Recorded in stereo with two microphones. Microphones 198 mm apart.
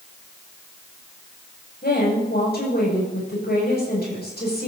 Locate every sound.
1.8 s a woman speaking: 60° left (ahead or behind), 8 m